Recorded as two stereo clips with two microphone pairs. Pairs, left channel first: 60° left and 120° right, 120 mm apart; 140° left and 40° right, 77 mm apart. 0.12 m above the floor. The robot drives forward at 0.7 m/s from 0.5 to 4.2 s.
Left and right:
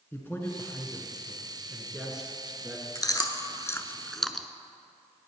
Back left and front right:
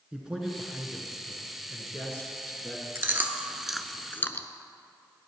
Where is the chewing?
10° left, 0.8 m; by 4.5 s 145° left, 0.5 m.